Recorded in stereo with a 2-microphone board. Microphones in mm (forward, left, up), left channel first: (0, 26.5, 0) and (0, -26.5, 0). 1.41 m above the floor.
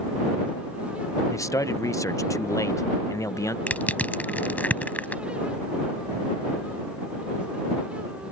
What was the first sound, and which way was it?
A man speaking, 80° left.